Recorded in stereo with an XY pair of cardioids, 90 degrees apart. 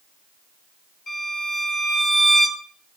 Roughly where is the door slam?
I don't hear a door slam.